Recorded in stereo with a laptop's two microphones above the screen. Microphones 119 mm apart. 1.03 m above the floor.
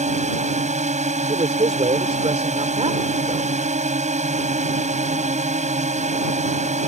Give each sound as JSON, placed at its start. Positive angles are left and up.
{"t": 0.0, "sound": "a drone", "side_deg": -75}
{"t": 1.3, "sound": "a man speaking", "side_deg": -60}